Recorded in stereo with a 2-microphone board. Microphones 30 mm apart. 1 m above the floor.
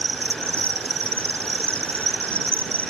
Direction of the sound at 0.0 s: 60° left (ahead or behind).